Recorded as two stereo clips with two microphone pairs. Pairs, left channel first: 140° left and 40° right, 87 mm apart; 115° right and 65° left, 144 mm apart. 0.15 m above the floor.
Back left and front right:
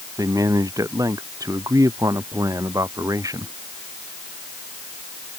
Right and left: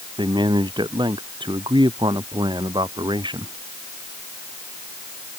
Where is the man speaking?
10° left.